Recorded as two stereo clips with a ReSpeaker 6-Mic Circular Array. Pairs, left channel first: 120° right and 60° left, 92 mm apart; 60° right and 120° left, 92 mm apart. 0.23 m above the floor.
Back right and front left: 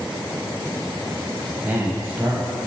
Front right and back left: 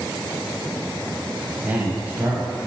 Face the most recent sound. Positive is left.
turn(degrees=90)